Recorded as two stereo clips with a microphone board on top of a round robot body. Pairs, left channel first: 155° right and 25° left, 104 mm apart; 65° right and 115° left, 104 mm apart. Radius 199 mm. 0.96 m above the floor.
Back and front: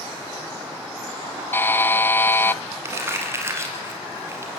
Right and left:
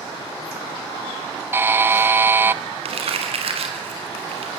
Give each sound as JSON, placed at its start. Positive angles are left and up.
{"t": 1.5, "sound": "a buzzer", "azimuth_deg": 155, "distance_m": 0.8}
{"t": 2.9, "sound": "crumpling", "azimuth_deg": 90, "distance_m": 3.0}